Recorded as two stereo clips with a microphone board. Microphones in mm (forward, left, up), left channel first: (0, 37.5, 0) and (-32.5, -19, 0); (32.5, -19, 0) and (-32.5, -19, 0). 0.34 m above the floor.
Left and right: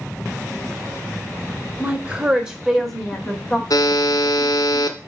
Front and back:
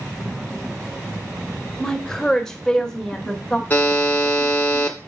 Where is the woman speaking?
75° right, 1.5 m; by 3.6 s 55° left, 1.3 m.